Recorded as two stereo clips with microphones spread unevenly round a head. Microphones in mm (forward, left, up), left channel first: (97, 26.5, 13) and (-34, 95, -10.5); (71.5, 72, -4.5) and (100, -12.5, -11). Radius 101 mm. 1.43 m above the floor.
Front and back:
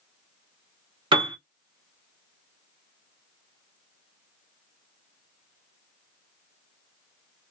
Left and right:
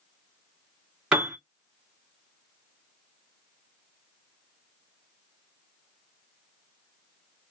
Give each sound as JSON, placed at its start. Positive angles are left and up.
{"t": 1.1, "sound": "a piano", "azimuth_deg": -150, "distance_m": 0.6}